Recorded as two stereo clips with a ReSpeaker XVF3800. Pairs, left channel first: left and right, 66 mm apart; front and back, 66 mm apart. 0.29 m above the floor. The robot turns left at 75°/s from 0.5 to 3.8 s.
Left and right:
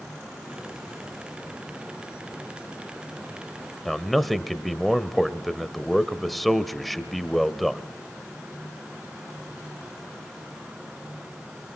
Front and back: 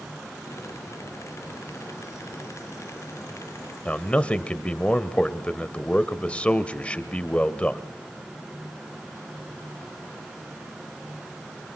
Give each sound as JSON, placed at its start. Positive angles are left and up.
{"t": 3.9, "sound": "a man speaking", "azimuth_deg": 5, "distance_m": 0.9}